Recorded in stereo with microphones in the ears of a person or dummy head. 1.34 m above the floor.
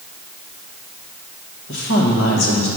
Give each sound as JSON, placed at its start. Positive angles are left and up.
{"t": 1.7, "sound": "a woman speaking", "side_deg": 60, "distance_m": 1.7}